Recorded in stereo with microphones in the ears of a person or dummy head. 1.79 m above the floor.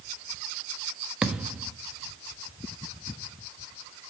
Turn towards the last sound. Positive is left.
turn(degrees=-5)  # may be behind; listen again after turning